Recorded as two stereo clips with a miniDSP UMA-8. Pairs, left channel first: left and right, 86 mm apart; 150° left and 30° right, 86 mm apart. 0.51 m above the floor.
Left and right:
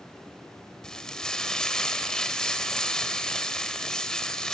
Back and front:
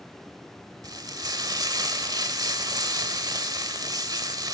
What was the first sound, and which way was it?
Frying, 10° left.